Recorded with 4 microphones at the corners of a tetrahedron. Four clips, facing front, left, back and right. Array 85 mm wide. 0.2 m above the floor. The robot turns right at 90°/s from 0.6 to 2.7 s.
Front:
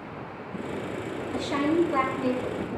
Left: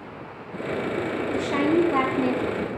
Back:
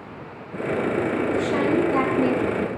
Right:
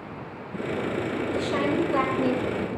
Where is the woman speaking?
60° left, 5 m; by 2.7 s straight behind, 5 m.